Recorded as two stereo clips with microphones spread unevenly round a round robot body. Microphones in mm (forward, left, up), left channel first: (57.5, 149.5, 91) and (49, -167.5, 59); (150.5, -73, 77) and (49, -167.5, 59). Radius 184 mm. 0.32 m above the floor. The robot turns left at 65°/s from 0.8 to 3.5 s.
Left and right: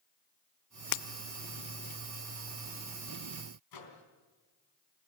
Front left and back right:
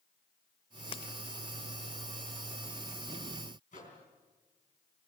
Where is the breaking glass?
95° left, 0.6 m; by 1.1 s 85° left, 0.6 m.